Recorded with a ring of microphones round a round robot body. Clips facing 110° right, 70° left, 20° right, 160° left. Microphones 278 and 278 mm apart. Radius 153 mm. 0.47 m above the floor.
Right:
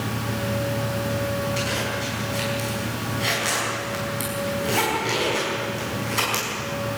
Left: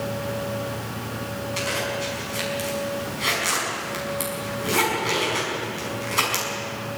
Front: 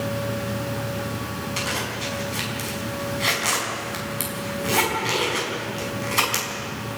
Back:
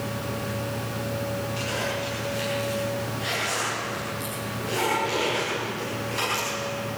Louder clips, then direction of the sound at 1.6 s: Right 1 dB, back 1 dB; 15° right.